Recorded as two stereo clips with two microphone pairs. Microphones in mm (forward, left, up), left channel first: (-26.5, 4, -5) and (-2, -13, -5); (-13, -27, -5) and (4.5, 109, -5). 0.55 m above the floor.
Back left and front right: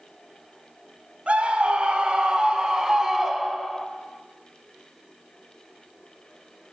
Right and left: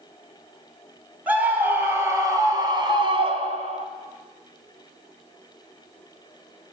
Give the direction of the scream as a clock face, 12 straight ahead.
12 o'clock.